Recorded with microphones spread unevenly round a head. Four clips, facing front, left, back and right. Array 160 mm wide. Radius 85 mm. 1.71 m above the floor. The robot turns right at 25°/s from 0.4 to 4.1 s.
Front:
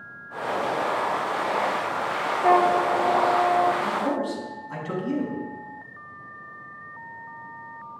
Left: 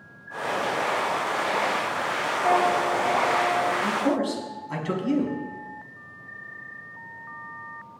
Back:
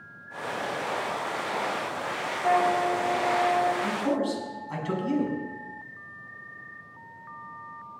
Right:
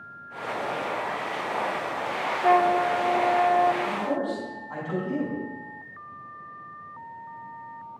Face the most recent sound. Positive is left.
turn(degrees=100)